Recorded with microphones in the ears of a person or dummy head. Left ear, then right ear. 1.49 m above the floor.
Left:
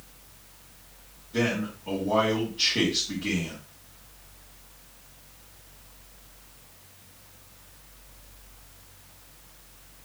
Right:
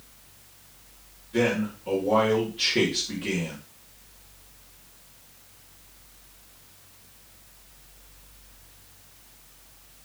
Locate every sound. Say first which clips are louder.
1.3 s a man speaking: right 3 dB; 20° right (ahead or behind), 2.5 m